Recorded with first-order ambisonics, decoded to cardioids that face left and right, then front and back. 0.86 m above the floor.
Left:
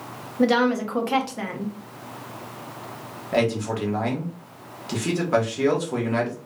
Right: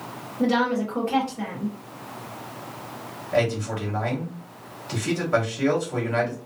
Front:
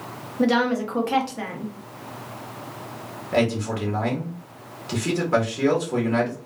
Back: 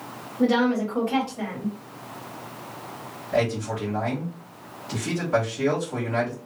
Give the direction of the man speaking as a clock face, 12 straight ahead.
10 o'clock.